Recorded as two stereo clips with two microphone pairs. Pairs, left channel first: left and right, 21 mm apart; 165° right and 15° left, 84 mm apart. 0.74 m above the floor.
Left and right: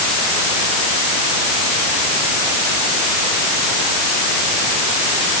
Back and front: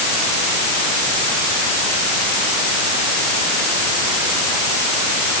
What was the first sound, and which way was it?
Only background noise.